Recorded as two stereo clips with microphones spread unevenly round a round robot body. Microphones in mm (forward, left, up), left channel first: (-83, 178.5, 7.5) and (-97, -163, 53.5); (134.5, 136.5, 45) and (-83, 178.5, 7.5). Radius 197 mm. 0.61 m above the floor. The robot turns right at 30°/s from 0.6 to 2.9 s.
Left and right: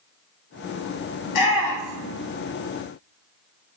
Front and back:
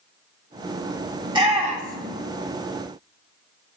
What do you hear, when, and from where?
1.2 s a shout: 100° left, 4.5 m; by 2.2 s 125° left, 4.5 m